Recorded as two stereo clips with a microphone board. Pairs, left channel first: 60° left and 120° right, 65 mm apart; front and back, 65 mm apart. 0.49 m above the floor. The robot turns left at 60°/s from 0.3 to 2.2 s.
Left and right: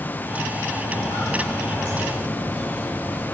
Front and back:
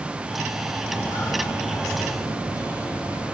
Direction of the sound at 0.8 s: 65° left.